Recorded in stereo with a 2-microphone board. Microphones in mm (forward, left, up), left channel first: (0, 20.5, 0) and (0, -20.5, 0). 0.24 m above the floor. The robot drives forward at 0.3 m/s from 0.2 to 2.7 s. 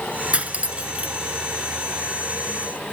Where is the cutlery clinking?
35° right (ahead or behind), 1.8 m.